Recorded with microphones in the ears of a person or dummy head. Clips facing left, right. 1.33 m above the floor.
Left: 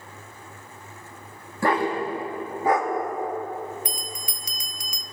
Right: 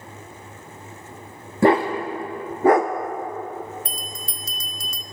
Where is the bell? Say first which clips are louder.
Even; 15° left (ahead or behind), 0.5 m.